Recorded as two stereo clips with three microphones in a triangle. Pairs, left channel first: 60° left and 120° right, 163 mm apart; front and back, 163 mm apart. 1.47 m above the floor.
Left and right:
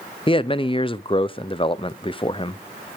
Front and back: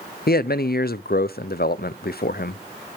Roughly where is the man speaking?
Ahead.